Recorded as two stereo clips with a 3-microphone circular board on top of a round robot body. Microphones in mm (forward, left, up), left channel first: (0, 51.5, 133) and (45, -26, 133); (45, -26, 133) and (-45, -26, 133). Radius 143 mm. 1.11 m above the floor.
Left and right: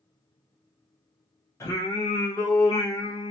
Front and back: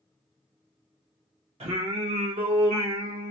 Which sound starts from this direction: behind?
Singing, at 1.6 s.